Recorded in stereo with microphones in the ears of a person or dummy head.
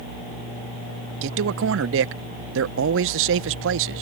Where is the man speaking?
60° right (ahead or behind).